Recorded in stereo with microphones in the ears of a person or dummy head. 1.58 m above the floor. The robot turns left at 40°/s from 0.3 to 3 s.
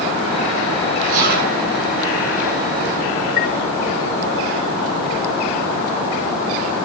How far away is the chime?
About 0.7 m.